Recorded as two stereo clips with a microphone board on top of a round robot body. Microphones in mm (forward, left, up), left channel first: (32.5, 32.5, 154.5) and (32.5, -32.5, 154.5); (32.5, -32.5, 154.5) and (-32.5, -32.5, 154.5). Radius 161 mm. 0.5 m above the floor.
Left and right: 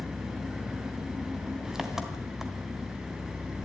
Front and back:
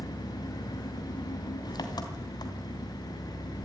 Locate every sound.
0.0 s an engine running: 10° right, 3 m